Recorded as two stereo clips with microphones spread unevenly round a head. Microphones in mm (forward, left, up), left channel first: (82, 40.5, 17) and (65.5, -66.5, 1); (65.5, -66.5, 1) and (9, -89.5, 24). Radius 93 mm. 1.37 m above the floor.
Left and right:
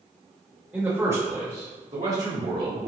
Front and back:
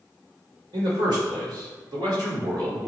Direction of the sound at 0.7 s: 175° left.